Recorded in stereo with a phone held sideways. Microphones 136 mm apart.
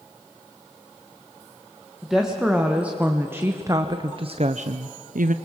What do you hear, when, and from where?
2.0 s a woman speaking: centre (ahead or behind), 1.8 m; by 5.3 s 75° right (ahead or behind), 0.7 m